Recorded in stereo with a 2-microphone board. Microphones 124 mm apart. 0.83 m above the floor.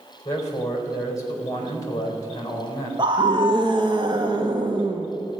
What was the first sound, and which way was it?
A man speaking, 30° left (ahead or behind).